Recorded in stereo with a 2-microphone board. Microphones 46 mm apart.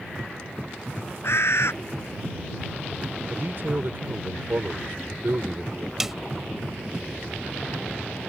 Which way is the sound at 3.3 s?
55° right (ahead or behind).